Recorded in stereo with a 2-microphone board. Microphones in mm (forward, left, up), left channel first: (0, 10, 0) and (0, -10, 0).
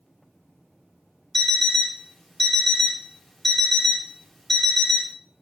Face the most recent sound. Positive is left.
turn(degrees=15)  # may be behind; listen again after turning